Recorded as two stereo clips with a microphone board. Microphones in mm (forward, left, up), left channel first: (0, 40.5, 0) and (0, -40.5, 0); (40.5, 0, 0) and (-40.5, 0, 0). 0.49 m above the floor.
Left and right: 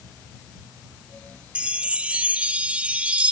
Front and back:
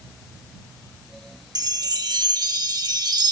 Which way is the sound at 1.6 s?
165° right.